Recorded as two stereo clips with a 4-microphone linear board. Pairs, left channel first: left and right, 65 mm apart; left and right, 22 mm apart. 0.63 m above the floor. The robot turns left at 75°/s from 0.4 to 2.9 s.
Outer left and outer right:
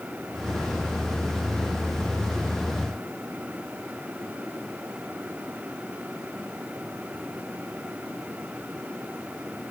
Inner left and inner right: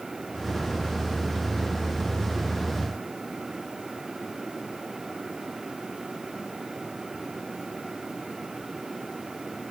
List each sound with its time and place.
Only background noise.